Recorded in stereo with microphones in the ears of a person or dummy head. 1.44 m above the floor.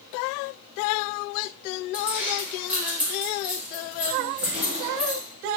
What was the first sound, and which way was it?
Keys jangling, 10° right (ahead or behind).